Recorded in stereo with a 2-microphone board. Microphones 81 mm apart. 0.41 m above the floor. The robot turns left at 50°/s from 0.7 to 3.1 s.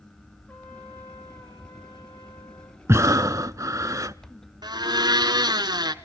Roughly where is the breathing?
Right.